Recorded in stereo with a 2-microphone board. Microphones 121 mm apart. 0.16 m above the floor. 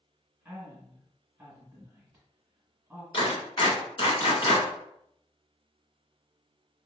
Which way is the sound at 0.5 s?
10° right (ahead or behind).